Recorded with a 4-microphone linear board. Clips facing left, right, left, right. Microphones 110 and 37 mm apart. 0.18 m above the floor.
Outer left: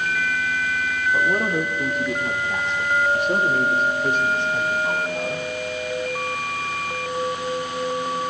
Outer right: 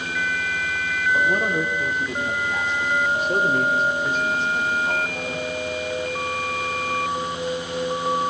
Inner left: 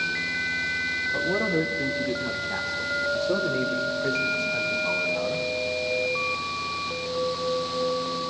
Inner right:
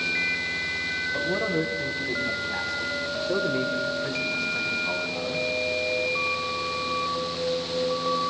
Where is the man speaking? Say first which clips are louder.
Even, inner left 1 dB; 65° left (ahead or behind), 8 m.